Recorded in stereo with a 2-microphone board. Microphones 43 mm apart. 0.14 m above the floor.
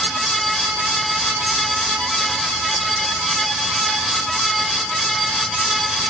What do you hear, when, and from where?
Only background noise.